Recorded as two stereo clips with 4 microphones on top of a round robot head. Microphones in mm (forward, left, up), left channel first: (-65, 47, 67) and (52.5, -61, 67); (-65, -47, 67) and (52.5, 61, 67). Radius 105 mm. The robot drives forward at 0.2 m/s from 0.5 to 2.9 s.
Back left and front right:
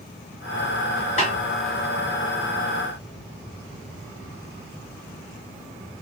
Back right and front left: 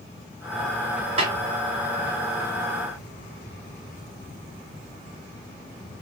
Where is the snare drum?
90° left, 2.5 m.